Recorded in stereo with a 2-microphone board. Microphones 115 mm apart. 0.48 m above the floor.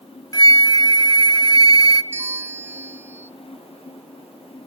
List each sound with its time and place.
0.3 s a flute: 35° left (ahead or behind), 0.6 m
2.1 s a bell: 20° right (ahead or behind), 0.5 m